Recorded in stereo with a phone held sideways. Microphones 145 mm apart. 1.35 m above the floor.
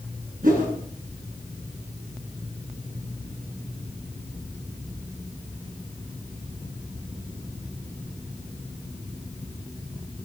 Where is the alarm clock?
No alarm clock in this recording.